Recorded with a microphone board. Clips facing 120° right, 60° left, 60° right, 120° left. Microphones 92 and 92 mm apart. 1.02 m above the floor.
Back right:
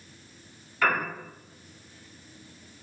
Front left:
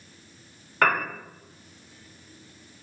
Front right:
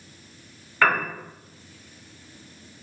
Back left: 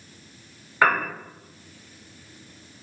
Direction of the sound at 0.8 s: 50° left.